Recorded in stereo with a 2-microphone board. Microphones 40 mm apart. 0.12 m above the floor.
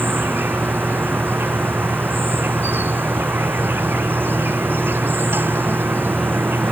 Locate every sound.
0.0 s an insect: 60° right (ahead or behind)